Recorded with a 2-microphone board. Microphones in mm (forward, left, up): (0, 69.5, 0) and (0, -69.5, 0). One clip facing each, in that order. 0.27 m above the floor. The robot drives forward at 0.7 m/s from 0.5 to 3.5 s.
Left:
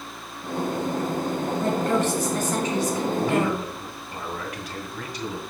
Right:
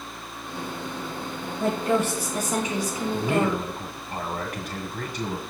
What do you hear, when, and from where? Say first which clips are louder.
1.6 s a woman speaking: right 1 dB; 10° right (ahead or behind), 1.5 m
3.1 s a man speaking: right 2 dB; 50° right (ahead or behind), 1.9 m